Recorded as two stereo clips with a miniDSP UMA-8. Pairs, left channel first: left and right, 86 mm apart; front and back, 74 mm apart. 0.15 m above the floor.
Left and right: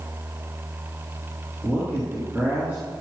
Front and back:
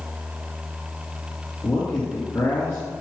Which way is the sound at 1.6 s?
35° right.